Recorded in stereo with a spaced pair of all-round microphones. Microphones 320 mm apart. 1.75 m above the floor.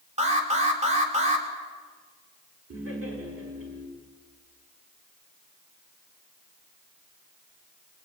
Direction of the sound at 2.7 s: 45° right (ahead or behind).